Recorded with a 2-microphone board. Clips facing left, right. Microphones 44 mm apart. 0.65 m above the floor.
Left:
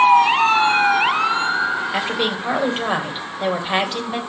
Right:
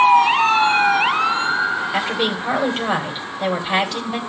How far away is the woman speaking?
About 3 m.